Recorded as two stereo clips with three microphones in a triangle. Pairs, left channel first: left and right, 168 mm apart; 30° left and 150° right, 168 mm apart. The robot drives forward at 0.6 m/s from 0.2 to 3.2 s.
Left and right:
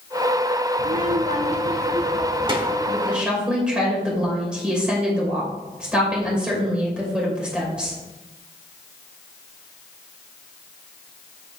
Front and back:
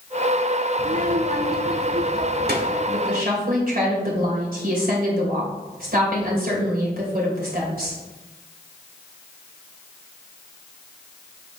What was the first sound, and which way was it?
A child speaking, 115° right.